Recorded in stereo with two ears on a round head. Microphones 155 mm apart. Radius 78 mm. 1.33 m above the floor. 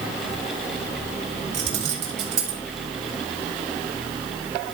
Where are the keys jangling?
40° right (ahead or behind), 2.5 m.